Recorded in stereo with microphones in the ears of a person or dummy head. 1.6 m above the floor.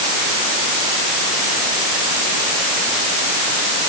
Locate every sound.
Only background noise.